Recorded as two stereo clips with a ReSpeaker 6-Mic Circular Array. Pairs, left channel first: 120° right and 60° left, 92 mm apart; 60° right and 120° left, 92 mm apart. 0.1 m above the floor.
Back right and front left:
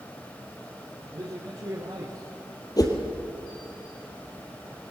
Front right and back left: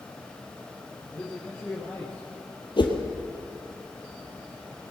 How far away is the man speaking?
About 4 m.